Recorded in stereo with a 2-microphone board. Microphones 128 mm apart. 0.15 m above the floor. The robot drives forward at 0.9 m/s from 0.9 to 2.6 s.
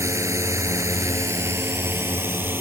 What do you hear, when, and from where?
0.0 s a drone: 25° right (ahead or behind); by 2.6 s 15° right (ahead or behind)